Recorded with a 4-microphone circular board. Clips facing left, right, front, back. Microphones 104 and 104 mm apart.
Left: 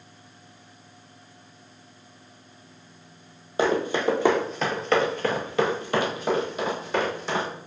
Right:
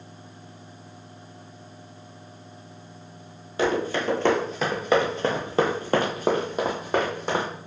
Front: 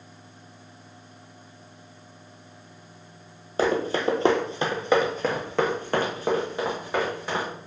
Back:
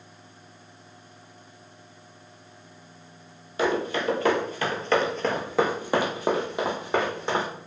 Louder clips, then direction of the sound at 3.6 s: Left 1 dB, front 2 dB; 35° left.